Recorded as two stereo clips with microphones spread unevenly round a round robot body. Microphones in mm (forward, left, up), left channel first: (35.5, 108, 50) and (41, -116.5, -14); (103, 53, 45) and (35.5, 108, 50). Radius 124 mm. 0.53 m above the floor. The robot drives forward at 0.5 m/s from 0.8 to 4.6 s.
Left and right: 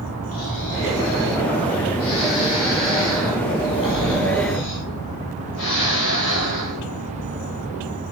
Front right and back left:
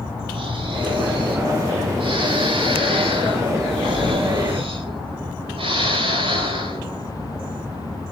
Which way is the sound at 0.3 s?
130° left.